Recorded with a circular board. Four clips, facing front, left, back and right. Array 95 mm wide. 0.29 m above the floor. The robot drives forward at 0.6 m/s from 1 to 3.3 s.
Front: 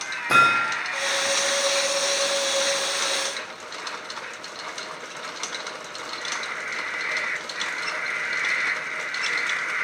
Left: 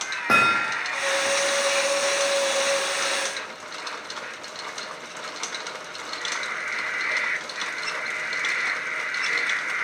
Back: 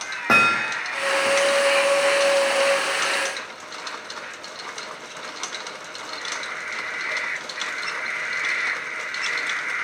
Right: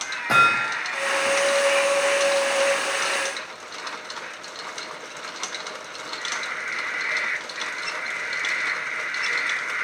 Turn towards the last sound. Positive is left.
turn(degrees=165)